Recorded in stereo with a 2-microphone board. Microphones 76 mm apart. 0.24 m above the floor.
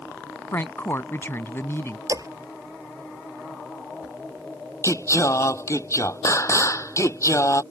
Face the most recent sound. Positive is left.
turn(degrees=40)  # may be behind; listen again after turning